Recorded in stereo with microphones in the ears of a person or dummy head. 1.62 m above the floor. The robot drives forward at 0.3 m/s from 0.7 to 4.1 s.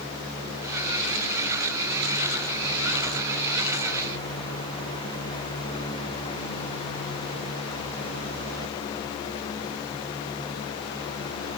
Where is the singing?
No singing in this recording.